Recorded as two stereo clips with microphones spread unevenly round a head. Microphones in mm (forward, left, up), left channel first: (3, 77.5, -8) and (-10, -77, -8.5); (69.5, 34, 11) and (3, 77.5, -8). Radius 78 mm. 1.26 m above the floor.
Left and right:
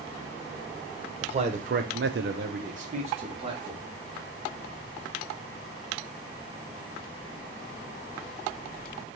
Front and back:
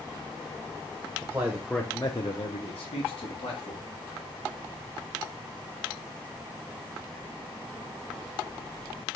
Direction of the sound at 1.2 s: 150° right.